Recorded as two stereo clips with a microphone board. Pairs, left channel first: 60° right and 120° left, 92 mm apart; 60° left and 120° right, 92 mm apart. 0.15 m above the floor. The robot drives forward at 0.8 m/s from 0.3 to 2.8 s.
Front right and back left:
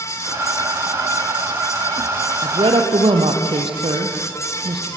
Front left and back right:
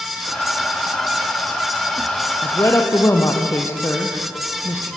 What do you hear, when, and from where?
2.4 s a woman speaking: 115° left, 4 m; by 4.9 s 120° left, 4 m